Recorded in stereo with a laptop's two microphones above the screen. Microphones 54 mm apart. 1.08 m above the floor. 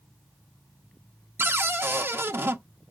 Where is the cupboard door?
45° right (ahead or behind), 0.5 m.